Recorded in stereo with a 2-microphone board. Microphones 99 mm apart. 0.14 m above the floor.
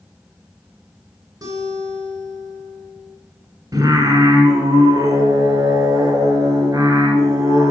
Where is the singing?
40° right (ahead or behind), 1.5 m.